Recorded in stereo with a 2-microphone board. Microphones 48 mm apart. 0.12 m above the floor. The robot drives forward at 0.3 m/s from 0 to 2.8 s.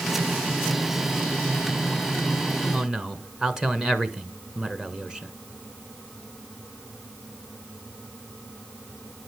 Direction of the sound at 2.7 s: 10° right (ahead or behind).